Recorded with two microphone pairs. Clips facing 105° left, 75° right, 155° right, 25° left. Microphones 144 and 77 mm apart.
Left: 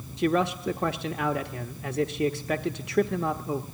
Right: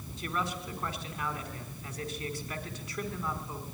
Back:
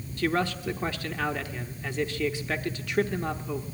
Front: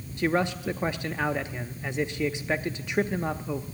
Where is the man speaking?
90° left, 0.9 m.